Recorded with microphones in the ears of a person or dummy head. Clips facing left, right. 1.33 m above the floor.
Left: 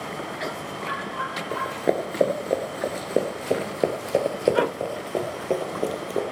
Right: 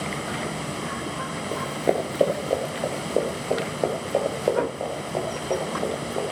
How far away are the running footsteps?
About 1.3 m.